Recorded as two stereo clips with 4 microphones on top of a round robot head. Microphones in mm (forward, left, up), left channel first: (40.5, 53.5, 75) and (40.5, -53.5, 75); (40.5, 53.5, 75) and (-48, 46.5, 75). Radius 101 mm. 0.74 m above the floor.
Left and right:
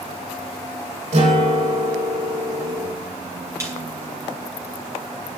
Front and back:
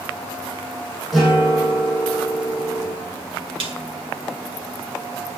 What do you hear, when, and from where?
1.1 s a guitar: 85° right, 6.5 m
3.6 s a snare drum: 155° right, 2.5 m